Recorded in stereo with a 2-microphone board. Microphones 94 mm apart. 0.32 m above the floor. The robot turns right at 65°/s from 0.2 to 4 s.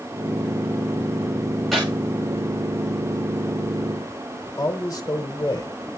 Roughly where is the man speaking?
Left.